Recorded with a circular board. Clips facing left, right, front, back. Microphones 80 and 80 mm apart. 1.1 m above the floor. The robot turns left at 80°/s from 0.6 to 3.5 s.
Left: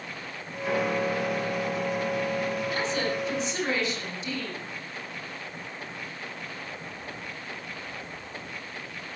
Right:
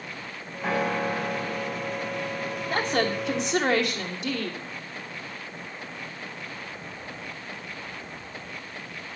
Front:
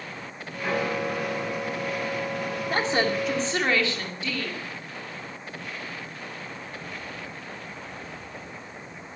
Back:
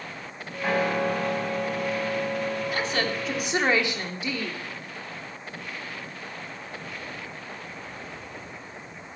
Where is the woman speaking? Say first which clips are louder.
Right 3 dB, front 3 dB; 45° right, 2.5 m; by 4.6 s 110° right, 2.5 m.